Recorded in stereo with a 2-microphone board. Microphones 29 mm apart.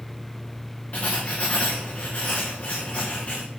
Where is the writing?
40° left (ahead or behind), 4 m.